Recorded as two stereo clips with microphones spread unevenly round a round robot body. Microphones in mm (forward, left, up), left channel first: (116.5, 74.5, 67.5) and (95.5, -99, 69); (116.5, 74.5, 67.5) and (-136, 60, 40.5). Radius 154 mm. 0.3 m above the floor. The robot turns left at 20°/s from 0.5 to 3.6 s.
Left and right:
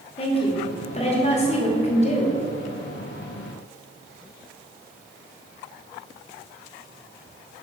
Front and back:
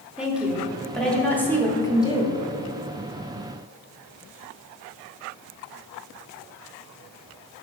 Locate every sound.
0.2 s a woman speaking: 110° left, 1.4 m; by 2.4 s 70° left, 1.4 m